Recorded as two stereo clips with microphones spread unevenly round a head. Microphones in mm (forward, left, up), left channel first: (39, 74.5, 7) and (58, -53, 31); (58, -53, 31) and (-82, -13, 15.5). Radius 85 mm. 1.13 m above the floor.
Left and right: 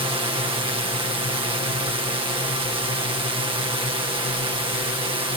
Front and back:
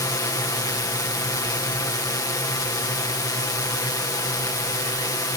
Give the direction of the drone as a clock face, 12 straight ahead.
2 o'clock.